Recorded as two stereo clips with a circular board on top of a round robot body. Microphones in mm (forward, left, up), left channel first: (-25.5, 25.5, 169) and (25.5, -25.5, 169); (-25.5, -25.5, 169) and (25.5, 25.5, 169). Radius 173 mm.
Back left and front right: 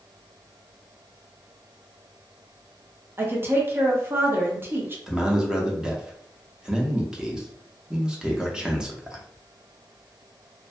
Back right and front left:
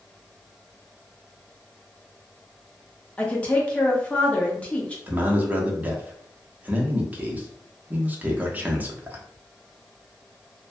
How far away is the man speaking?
About 0.9 m.